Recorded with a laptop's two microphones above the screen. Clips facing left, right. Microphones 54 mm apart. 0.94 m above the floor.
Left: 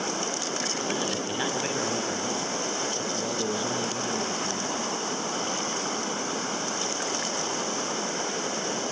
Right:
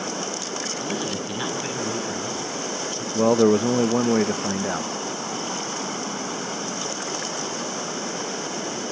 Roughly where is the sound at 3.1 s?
Right.